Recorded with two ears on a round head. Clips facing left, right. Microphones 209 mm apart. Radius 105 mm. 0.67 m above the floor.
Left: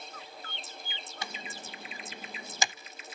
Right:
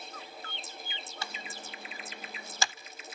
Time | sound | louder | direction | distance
1.2 | typing on a keyboard | left 2 dB | 15° left (ahead or behind) | 0.6 m